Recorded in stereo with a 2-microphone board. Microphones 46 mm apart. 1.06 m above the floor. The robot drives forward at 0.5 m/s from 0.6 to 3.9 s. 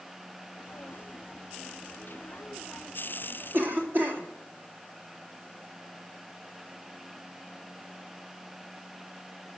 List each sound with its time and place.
3.5 s a cough: 50° right (ahead or behind), 2.0 m; by 4.2 s 45° right (ahead or behind), 2 m